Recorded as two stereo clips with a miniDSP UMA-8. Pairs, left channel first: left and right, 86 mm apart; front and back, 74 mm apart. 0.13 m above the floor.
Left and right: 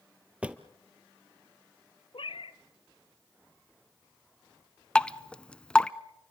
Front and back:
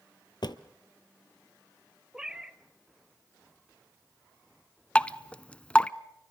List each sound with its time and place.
0.4 s a drawer: 15° right, 1.1 m
2.1 s a cat meowing: 100° left, 0.8 m
5.0 s dripping: 35° left, 0.6 m